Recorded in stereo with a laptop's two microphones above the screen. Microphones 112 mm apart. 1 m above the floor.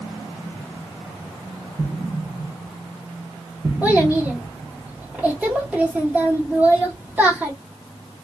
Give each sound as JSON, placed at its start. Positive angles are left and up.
{"t": 1.8, "sound": "an explosion", "side_deg": -35, "distance_m": 0.9}
{"t": 3.8, "sound": "a child speaking", "side_deg": -15, "distance_m": 1.0}